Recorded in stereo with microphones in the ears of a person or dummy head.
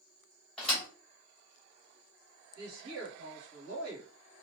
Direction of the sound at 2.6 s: 80° right.